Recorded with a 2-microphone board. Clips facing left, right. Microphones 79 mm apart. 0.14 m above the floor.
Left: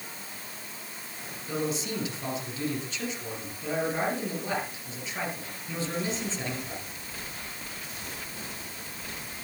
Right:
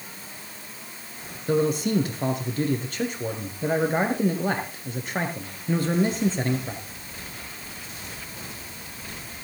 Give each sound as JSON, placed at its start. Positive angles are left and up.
{"t": 1.5, "sound": "a man speaking", "side_deg": -55, "distance_m": 3.0}